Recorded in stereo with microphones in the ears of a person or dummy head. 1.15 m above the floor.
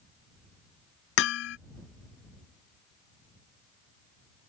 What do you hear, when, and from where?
1.2 s hammering: 70° left (ahead or behind)